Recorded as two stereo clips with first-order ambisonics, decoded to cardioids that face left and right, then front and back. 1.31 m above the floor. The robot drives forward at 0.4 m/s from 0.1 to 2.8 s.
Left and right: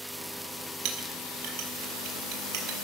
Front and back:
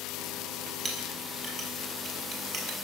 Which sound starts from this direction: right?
A clink, at 0.8 s.